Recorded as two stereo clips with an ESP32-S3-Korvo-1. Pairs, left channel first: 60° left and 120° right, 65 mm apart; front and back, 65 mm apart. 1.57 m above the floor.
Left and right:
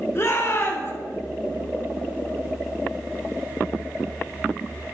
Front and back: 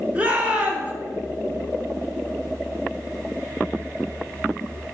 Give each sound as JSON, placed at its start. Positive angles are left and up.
{"t": 0.1, "sound": "a shout", "azimuth_deg": 115, "distance_m": 2.0}